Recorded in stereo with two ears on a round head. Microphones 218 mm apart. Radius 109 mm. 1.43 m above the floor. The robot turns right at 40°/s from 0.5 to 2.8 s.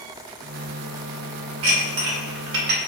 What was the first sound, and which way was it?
Dishes clattering, 60° right (ahead or behind).